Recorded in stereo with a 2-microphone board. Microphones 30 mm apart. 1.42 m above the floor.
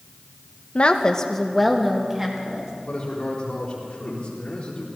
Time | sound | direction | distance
0.8 | a woman speaking | 45° left (ahead or behind) | 0.9 m
2.9 | a man speaking | 30° left (ahead or behind) | 4 m